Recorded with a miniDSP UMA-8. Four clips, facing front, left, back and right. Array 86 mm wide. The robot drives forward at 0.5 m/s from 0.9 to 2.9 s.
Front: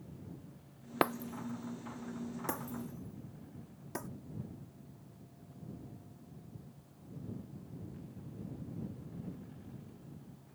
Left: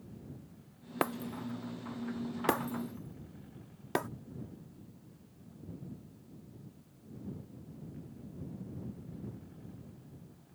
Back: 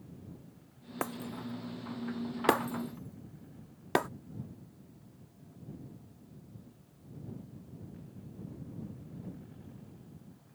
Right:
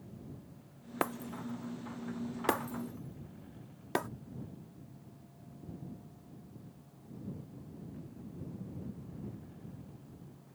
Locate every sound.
1.0 s breaking glass: 10° left; by 4.1 s straight behind